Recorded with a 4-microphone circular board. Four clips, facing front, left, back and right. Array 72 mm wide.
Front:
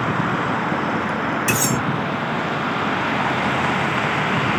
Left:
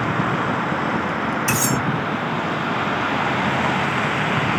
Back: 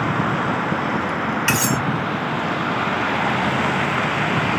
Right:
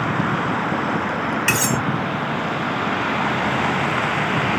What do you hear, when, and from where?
1.5 s cutlery clinking: 120° right, 1.4 m